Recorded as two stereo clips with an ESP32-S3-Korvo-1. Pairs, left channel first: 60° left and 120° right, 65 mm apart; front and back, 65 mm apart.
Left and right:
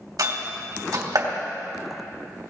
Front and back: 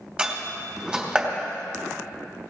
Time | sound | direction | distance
0.2 | a door slam | 110° right | 2.5 m